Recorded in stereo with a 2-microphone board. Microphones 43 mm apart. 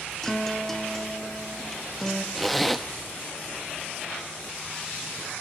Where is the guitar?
10° left (ahead or behind), 0.8 m.